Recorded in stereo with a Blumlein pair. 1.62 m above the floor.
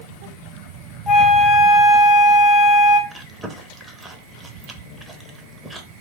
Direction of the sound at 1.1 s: 10° left.